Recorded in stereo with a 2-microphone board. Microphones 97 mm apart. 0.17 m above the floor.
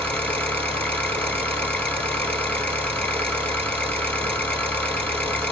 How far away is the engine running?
About 1.3 m.